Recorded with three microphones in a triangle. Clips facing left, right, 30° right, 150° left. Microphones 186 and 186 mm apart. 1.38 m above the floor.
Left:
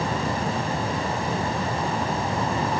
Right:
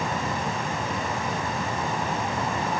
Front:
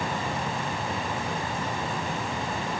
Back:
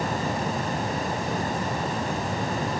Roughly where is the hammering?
No hammering in this recording.